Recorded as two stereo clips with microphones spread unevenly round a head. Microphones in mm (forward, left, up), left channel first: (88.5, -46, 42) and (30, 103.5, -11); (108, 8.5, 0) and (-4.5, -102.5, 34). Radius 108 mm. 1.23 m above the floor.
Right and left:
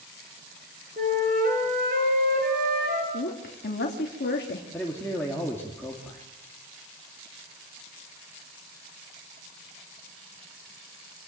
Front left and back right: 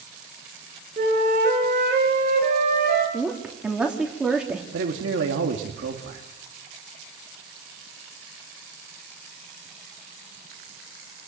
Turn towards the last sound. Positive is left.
turn(degrees=-150)